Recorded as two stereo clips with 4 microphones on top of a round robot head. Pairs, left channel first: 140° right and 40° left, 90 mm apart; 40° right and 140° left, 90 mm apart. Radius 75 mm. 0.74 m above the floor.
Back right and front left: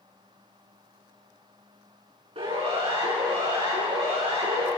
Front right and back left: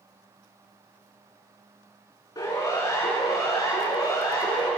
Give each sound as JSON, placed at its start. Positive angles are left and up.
{"t": 2.4, "sound": "a siren", "azimuth_deg": 15, "distance_m": 8.0}